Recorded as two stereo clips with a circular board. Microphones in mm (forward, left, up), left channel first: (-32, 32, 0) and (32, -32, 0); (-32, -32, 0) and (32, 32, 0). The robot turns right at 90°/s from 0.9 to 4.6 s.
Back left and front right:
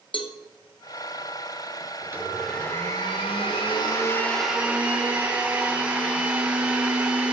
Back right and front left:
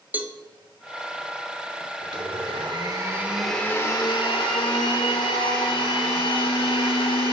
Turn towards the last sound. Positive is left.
turn(degrees=-120)